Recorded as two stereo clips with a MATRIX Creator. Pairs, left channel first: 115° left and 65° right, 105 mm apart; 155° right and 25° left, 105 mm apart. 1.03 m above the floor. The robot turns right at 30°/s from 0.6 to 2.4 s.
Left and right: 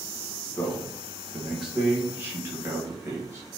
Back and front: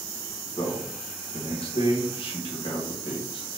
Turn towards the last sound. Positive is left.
turn(degrees=-130)